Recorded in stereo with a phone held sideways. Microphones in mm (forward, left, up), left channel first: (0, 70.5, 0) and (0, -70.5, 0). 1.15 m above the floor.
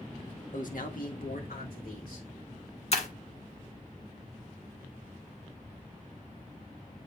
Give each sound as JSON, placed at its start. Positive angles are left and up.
{"t": 0.5, "sound": "a man speaking", "side_deg": 65, "distance_m": 1.4}
{"t": 2.9, "sound": "breaking glass", "side_deg": 50, "distance_m": 1.6}